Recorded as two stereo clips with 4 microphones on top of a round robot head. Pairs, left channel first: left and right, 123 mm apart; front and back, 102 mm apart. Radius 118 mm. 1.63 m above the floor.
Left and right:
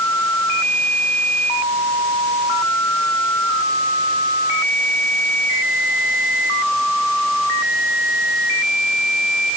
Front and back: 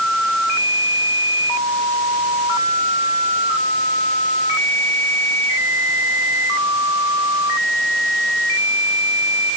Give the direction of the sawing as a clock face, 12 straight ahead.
I don't hear sawing.